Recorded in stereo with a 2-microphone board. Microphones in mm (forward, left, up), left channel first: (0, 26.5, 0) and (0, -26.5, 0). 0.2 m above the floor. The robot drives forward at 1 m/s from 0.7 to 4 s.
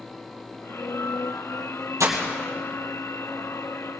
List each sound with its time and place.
2.0 s breaking glass: 80° right, 2.5 m